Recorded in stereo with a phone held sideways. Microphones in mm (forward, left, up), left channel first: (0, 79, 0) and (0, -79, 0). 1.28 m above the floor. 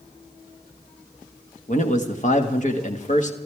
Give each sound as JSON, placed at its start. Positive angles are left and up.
{"t": 1.7, "sound": "a man speaking", "side_deg": 50, "distance_m": 1.8}